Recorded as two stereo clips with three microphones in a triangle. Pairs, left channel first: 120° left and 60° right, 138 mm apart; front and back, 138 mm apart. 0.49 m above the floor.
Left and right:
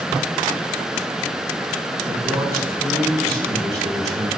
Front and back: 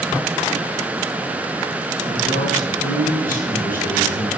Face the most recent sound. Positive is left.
turn(degrees=5)